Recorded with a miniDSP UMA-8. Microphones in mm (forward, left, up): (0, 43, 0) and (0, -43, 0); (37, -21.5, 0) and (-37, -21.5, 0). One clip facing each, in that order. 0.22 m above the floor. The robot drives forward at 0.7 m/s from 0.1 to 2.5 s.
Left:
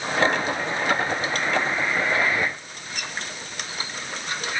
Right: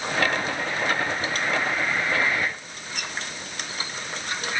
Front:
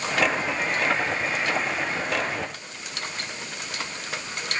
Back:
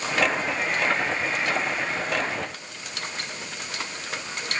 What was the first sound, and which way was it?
Only background noise.